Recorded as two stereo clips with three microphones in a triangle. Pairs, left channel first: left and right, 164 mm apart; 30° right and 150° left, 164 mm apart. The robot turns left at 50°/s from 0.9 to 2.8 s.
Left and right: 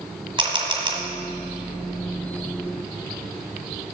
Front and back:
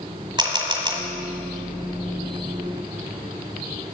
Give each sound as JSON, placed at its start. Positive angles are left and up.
{"t": 0.4, "sound": "a camera shutter", "azimuth_deg": -150, "distance_m": 1.7}